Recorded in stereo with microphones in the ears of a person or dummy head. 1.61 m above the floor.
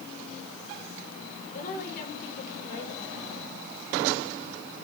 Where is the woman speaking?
50° left (ahead or behind), 7 m.